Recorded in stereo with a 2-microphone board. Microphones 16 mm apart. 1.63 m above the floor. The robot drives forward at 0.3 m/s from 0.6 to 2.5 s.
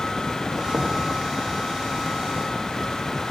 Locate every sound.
0.7 s knocking: 65° left (ahead or behind), 1.5 m; by 1.0 s 60° left (ahead or behind), 1.6 m